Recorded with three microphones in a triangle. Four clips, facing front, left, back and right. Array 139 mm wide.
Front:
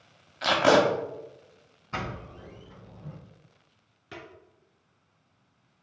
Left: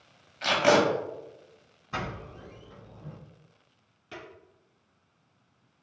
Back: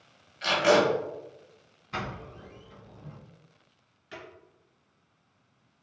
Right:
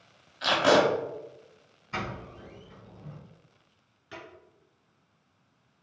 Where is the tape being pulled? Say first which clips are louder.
Even, front 2 dB; 10° left, 0.8 m.